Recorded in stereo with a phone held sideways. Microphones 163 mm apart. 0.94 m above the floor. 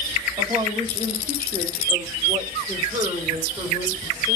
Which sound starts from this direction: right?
A woman speaking, at 0.4 s.